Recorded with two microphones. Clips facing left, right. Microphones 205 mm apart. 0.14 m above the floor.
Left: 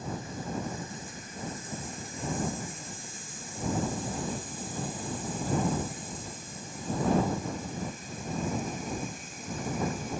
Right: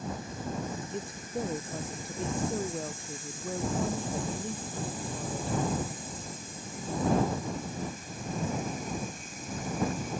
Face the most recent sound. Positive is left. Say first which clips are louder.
# right 7 dB
turn(degrees=-70)  # may be behind; listen again after turning